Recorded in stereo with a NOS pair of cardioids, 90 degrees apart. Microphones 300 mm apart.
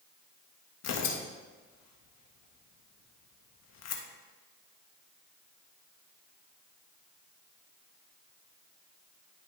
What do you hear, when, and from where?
0.8 s tearing paper: 60° left, 1.4 m